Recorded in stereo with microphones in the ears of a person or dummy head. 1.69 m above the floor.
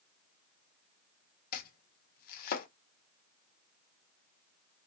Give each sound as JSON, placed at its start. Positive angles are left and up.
{"t": 1.5, "sound": "chopping", "side_deg": 55, "distance_m": 0.6}